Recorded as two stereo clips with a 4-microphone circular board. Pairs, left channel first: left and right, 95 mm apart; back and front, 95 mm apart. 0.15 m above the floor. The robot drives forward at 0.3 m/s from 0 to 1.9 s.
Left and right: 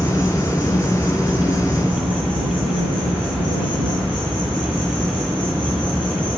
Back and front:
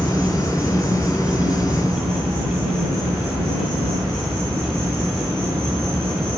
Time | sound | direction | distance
0.0 | an insect | 125° left | 0.8 m